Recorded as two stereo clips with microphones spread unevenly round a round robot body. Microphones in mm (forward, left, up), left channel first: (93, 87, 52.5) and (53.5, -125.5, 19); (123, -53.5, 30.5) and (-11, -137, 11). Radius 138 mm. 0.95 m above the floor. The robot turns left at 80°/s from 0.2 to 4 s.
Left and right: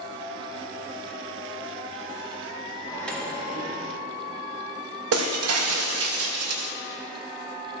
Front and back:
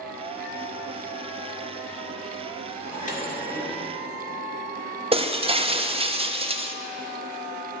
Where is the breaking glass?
90° right, 0.6 m.